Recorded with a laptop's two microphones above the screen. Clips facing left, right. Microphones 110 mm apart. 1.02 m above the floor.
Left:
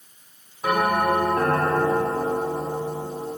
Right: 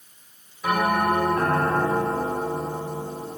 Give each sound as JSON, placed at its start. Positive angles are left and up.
{"t": 0.6, "sound": "a bell", "side_deg": 45, "distance_m": 1.7}